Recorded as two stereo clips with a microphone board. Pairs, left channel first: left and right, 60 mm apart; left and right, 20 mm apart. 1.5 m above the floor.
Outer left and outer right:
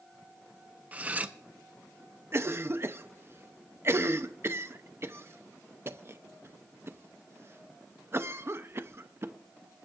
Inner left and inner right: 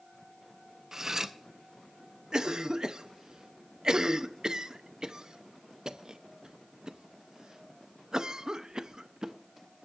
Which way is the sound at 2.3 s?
45° right (ahead or behind).